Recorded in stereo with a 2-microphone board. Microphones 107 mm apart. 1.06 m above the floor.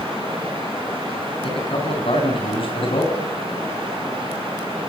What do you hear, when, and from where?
1.4 s a man speaking: 55° left (ahead or behind), 9 m